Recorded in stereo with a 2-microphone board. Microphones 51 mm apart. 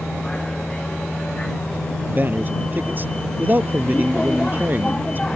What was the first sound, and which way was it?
A vehicle, 15° left (ahead or behind).